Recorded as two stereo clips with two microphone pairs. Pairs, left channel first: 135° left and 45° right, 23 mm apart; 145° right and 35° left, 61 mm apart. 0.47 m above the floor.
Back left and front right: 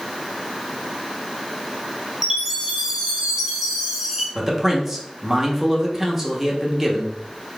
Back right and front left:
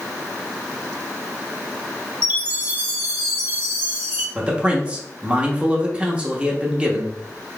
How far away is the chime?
About 1.5 m.